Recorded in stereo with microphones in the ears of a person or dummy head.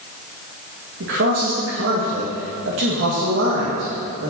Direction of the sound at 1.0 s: 60° right (ahead or behind).